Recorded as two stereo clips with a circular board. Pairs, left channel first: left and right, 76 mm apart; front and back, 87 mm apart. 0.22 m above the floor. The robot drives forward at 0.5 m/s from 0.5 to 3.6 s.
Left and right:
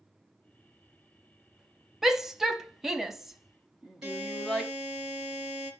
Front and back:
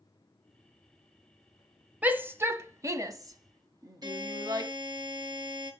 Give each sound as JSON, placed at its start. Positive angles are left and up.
{"t": 2.0, "sound": "a shout", "azimuth_deg": -165, "distance_m": 0.9}
{"t": 4.0, "sound": "a buzzer", "azimuth_deg": -155, "distance_m": 3.5}